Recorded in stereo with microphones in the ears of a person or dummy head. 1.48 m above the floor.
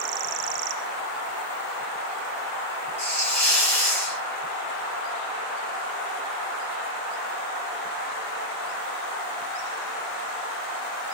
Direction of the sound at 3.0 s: 10° left (ahead or behind).